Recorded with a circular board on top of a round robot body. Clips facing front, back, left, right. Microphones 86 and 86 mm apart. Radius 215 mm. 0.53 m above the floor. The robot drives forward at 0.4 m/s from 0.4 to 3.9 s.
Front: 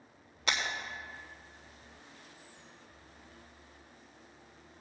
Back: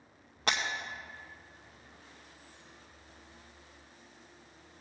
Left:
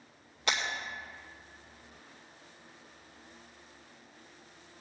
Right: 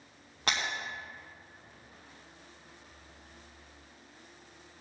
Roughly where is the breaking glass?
Behind right.